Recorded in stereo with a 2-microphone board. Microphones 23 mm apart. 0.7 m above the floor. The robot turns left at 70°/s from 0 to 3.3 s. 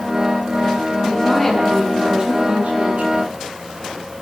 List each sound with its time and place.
1.0 s a woman speaking: 40° left, 9 m; by 3.1 s 110° right, 9 m